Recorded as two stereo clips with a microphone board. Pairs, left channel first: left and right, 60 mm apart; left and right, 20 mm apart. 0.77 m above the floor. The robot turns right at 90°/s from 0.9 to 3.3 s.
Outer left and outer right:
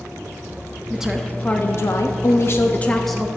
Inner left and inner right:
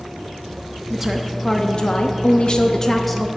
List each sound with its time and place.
0.9 s a woman speaking: 20° right, 0.8 m; by 3.3 s 170° right, 0.8 m